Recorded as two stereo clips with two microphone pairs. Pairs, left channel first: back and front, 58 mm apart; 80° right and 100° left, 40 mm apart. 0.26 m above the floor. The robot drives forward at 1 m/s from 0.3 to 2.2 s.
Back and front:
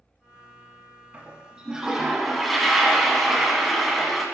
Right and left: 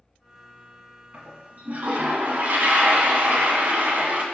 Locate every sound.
1.1 s a toilet flushing: 60° left, 2.5 m; by 4.2 s 90° left, 2 m